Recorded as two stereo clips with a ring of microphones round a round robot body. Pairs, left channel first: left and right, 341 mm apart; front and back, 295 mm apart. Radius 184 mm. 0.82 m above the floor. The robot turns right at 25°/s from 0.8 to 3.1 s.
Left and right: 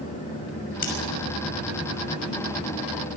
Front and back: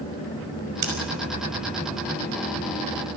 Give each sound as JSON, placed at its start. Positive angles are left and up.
{"t": 0.8, "sound": "scissors", "azimuth_deg": 155, "distance_m": 6.0}